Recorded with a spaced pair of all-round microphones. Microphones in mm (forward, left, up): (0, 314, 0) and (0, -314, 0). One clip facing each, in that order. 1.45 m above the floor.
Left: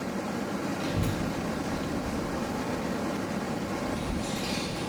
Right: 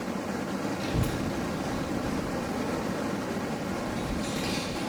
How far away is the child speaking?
About 0.5 m.